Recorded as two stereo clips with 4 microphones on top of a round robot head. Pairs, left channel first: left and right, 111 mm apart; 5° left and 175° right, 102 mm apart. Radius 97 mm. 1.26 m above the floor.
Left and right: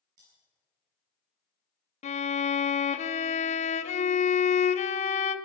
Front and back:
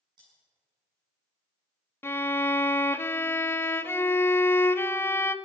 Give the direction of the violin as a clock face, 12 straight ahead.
10 o'clock.